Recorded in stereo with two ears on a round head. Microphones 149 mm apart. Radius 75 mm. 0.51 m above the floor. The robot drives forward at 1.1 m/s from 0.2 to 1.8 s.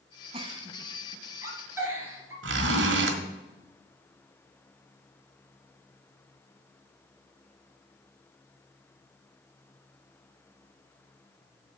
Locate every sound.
0.3 s a giggle: 35° right (ahead or behind), 1.2 m; by 2.3 s 15° right (ahead or behind), 2.5 m
2.4 s a zipper: 80° right, 1.6 m